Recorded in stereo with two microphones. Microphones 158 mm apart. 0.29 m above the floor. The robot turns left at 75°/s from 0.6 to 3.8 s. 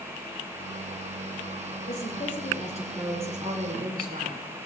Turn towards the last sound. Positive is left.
turn(degrees=-60)